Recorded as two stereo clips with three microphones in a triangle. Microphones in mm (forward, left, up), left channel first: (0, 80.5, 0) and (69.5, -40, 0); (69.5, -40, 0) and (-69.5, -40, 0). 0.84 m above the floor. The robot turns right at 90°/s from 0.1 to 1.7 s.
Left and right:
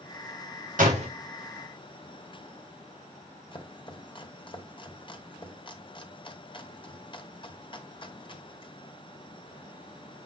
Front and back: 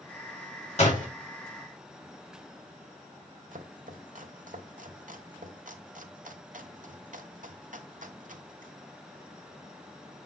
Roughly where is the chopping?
Behind.